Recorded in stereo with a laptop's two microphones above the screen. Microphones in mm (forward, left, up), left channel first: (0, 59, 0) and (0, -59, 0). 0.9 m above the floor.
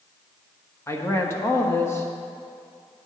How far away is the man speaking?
About 1.3 m.